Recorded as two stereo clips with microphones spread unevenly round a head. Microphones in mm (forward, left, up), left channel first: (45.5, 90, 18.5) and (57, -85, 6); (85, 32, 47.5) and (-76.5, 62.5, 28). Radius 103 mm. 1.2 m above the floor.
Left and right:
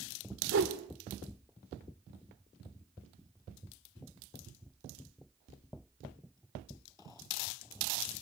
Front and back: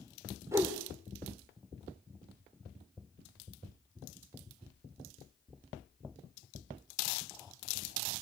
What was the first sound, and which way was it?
A whoosh, 110° right.